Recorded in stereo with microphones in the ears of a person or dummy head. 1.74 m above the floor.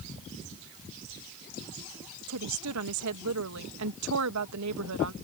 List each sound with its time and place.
2.3 s a woman speaking: 70° right (ahead or behind)